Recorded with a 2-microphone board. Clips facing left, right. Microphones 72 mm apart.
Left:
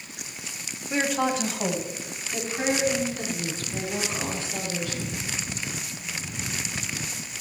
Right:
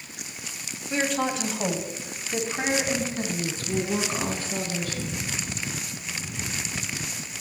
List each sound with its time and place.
0.9 s a woman speaking: 15° left (ahead or behind), 1.4 m; by 5.2 s 50° right (ahead or behind), 3.5 m